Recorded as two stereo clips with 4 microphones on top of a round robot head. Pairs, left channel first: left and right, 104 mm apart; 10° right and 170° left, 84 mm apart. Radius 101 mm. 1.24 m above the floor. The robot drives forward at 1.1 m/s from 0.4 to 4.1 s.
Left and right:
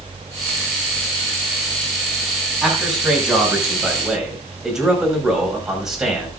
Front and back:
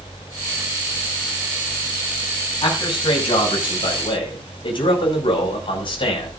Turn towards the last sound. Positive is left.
turn(degrees=-5)